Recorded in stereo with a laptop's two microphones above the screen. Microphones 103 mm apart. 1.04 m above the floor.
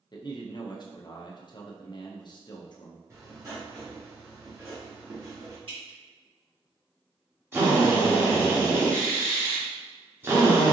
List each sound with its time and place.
0.1 s a man speaking: 45° left (ahead or behind), 0.8 m
3.1 s writing: 30° right (ahead or behind), 1.0 m
5.7 s dripping: 55° right (ahead or behind), 2.0 m
7.5 s a drill: 25° right (ahead or behind), 0.8 m